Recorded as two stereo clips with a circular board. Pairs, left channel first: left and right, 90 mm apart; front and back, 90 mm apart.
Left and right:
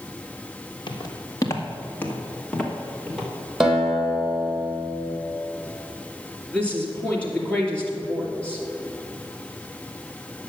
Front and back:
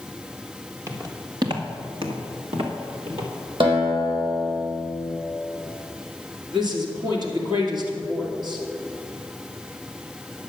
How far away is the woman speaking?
About 3 m.